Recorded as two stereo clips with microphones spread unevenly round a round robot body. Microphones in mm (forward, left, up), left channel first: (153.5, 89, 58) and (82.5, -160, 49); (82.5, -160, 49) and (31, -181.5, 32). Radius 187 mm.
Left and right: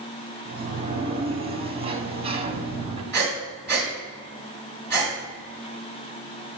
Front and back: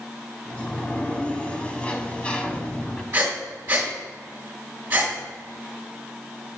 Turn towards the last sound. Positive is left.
turn(degrees=160)